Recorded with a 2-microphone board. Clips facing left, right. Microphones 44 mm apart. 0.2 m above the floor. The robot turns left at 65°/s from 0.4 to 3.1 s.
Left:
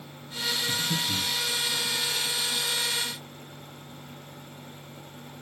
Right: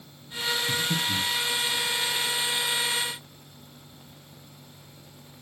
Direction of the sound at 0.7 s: 25° right (ahead or behind).